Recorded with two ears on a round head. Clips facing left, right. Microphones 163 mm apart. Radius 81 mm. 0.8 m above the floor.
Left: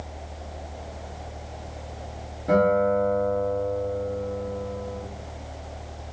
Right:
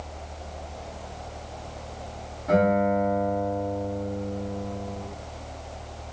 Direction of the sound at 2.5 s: 35° left (ahead or behind).